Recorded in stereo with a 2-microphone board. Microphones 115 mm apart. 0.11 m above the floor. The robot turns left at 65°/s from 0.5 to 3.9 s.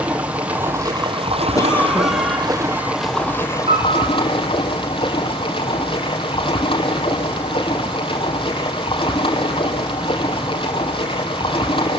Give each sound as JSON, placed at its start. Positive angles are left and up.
{"t": 0.0, "sound": "running water", "azimuth_deg": -15, "distance_m": 3.0}
{"t": 1.6, "sound": "a cough", "azimuth_deg": 35, "distance_m": 4.5}
{"t": 3.7, "sound": "a piano", "side_deg": -60, "distance_m": 6.5}